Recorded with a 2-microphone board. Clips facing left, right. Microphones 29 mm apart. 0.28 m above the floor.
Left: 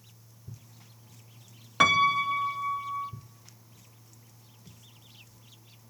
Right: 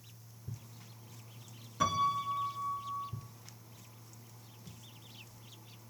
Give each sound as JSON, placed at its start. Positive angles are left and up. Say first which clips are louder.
{"t": 1.8, "sound": "a piano", "louder": "left 9 dB", "side_deg": 80, "distance_m": 0.6}